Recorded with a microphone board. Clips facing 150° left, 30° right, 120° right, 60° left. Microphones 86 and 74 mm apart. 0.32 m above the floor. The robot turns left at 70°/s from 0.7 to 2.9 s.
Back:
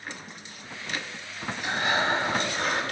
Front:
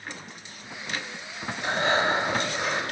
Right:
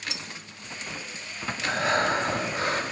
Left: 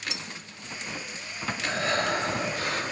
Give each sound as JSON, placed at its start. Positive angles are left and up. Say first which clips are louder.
{"t": 1.6, "sound": "breathing", "louder": "front 2 dB, right 3 dB", "azimuth_deg": -30, "distance_m": 1.7}